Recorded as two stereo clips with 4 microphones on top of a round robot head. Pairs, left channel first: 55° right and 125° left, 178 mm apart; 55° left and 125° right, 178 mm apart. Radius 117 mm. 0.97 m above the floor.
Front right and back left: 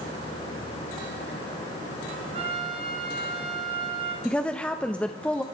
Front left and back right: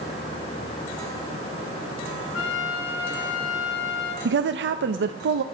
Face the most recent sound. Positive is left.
turn(degrees=-135)